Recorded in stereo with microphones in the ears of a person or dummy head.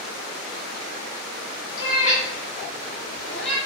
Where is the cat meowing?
60° left (ahead or behind), 1.4 m; by 3.6 s 5° left (ahead or behind), 1.1 m.